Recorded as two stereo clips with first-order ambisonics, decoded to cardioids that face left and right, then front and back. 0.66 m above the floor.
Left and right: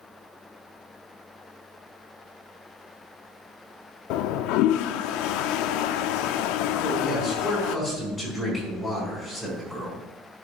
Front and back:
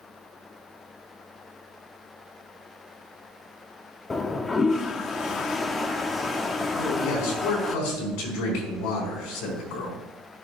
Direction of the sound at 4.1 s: 75° left.